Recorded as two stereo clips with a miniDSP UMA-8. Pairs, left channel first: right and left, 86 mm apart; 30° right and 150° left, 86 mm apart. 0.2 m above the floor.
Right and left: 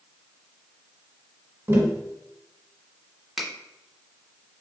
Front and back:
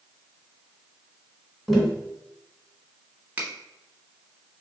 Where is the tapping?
55° left, 1.2 m.